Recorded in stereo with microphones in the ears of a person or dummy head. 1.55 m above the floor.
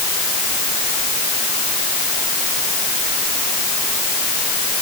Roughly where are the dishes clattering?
No dishes clattering in this recording.